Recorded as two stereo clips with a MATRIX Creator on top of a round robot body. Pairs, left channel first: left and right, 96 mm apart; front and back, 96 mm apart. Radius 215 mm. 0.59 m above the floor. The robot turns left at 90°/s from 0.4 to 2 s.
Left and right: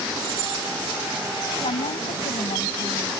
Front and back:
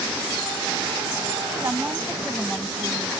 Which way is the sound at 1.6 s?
120° left.